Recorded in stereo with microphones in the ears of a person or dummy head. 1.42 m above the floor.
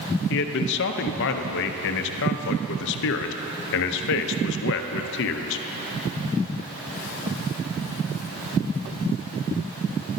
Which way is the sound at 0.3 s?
60° left (ahead or behind).